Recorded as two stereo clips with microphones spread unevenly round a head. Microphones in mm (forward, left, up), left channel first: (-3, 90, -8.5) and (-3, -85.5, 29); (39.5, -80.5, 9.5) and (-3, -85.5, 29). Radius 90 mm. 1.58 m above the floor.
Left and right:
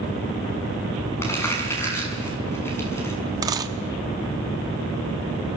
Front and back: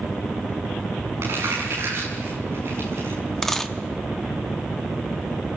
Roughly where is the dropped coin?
Right.